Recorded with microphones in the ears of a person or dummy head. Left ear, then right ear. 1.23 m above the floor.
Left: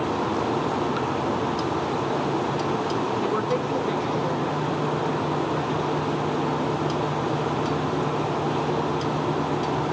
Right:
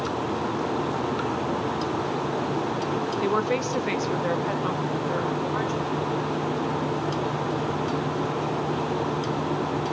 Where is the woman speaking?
75° right (ahead or behind), 1.4 m; by 6.0 s 35° right (ahead or behind), 4 m.